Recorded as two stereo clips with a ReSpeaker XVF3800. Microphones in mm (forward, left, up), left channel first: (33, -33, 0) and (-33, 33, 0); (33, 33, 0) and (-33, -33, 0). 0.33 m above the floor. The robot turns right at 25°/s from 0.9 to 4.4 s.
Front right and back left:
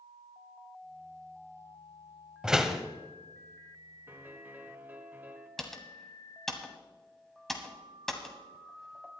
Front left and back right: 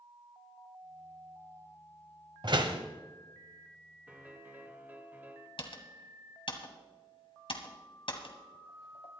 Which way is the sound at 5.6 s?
40° left.